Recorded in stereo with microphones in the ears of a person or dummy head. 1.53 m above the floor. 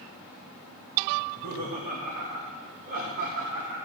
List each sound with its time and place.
1.2 s laughter: 50° right (ahead or behind), 1.7 m; by 3.8 s 55° right (ahead or behind), 3.5 m